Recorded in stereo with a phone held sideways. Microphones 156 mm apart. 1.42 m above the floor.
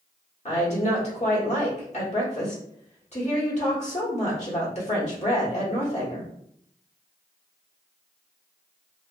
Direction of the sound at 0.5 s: 50° left (ahead or behind).